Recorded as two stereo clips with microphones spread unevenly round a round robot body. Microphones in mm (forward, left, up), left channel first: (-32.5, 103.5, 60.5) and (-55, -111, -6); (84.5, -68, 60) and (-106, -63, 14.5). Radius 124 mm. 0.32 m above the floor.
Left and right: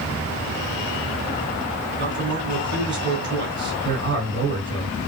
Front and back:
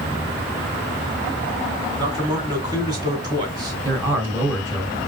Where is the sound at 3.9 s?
115° right, 3 m.